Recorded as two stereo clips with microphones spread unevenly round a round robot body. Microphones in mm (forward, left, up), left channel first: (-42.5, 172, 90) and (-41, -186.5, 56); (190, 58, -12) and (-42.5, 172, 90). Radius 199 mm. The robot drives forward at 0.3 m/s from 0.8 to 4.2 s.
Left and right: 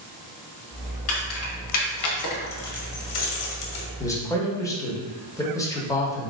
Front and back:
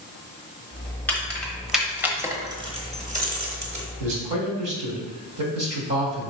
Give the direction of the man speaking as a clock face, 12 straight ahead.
6 o'clock.